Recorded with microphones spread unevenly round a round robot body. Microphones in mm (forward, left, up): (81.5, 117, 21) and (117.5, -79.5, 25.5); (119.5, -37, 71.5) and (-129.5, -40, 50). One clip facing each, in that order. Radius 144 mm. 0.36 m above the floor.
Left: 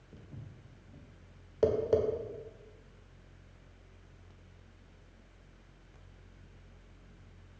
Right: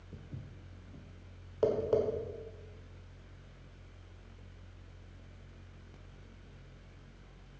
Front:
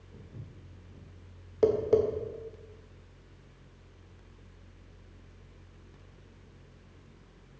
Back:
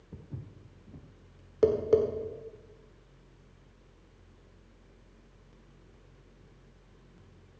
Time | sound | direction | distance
0.1 | footsteps | 150° right | 1.6 m
1.6 | tapping | 145° left | 1.5 m